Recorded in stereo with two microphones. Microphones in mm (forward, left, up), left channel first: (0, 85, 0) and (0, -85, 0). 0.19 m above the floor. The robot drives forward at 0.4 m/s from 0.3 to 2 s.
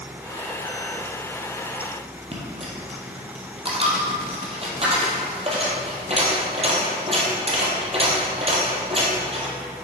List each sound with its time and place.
2.3 s a dropped coin: 35° right (ahead or behind), 2 m